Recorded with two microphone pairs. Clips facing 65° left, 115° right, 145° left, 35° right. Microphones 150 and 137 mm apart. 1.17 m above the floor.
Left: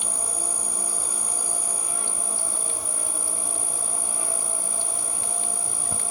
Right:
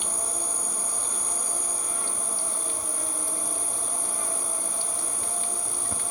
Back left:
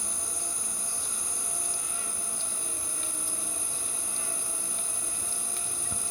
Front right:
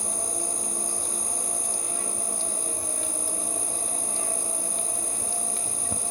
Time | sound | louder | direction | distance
0.0 | an insect | even, front right 8 dB | 15° right | 1.3 m